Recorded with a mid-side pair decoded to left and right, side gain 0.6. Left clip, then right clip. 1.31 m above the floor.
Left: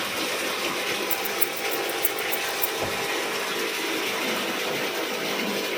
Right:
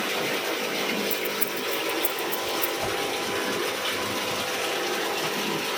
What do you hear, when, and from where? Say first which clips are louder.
1.1 s keys jangling: even; 15° left, 6.5 m
2.8 s a whoosh: even; straight ahead, 6 m